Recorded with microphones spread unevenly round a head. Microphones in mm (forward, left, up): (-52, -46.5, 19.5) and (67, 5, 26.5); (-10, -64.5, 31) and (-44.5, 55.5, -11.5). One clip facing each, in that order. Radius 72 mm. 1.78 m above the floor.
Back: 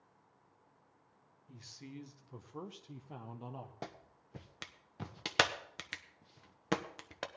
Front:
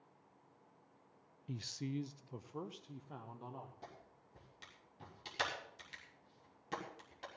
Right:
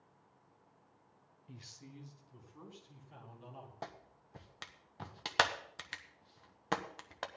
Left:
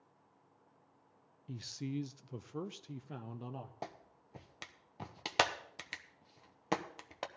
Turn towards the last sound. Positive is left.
turn(degrees=-175)